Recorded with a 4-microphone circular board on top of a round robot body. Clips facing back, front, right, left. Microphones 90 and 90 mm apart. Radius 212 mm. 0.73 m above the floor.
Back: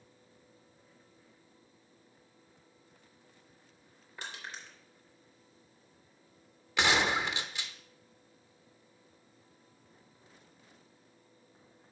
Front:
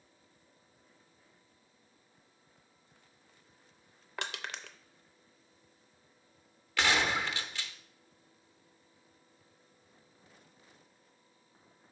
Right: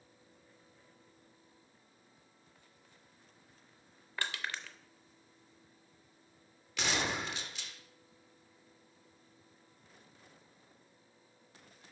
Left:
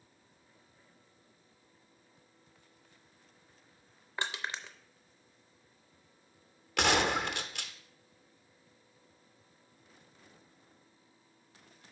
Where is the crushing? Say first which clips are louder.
Front 4 dB, left 2 dB; 20° left, 0.5 m.